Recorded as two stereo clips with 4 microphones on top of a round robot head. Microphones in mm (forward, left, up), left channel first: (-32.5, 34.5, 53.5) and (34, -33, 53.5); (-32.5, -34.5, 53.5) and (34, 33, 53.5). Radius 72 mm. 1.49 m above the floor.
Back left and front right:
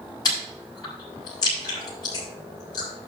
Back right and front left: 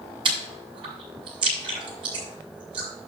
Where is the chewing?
85° left, 5.5 m.